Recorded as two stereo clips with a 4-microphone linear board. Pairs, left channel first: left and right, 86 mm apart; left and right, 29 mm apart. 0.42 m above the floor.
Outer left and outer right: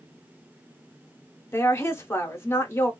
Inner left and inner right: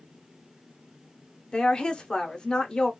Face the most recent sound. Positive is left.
turn(degrees=30)  # may be behind; listen again after turning